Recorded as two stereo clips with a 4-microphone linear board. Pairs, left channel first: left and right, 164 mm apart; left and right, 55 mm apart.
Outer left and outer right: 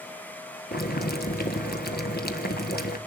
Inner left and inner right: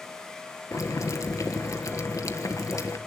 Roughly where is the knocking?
I don't hear knocking.